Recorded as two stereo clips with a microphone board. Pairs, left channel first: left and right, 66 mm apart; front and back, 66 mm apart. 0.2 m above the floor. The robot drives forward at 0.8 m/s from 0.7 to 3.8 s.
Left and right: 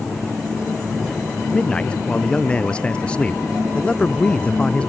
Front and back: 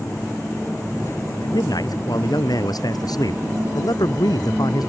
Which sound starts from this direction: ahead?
A man speaking, at 1.4 s.